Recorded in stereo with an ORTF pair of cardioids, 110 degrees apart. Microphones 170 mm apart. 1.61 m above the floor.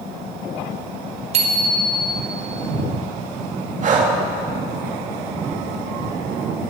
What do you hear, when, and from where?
1.3 s a bicycle bell: 40° right, 3.5 m
3.8 s breathing: 45° right, 2.5 m